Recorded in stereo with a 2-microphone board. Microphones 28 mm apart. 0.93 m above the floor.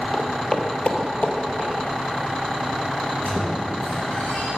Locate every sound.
0.1 s footsteps: 5° left (ahead or behind), 1.3 m; by 1.7 s 45° left (ahead or behind), 2.0 m
3.0 s a squeak: 55° left (ahead or behind), 3 m